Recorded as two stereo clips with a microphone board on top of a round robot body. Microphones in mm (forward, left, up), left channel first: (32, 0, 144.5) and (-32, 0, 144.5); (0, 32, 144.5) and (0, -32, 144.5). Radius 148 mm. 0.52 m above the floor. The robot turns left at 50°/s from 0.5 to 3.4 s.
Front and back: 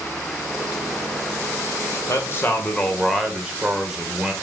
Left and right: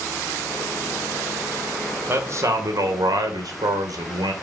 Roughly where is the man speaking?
Ahead right.